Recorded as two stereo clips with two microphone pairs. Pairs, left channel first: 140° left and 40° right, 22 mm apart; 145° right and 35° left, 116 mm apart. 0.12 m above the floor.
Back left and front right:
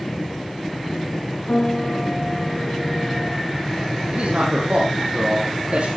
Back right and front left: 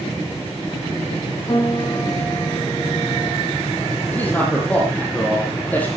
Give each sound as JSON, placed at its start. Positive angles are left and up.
{"t": 1.5, "sound": "a piano", "azimuth_deg": 175, "distance_m": 5.5}
{"t": 4.1, "sound": "a man speaking", "azimuth_deg": -70, "distance_m": 4.0}